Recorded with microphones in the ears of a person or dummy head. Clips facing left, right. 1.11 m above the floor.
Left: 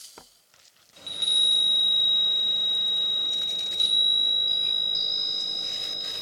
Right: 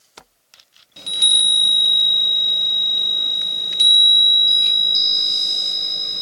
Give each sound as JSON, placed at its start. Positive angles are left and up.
{"t": 1.0, "sound": "a chime", "side_deg": -80, "distance_m": 1.4}